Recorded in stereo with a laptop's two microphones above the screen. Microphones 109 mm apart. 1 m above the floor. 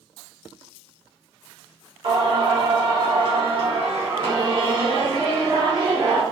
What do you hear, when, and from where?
2.0 s singing: 50° right (ahead or behind), 1.7 m